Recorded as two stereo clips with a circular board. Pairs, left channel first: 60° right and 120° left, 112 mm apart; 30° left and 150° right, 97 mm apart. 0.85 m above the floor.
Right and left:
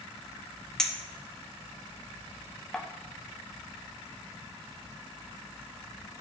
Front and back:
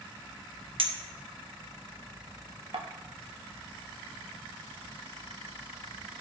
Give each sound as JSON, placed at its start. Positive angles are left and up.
{"t": 0.8, "sound": "a clink", "azimuth_deg": -145, "distance_m": 0.8}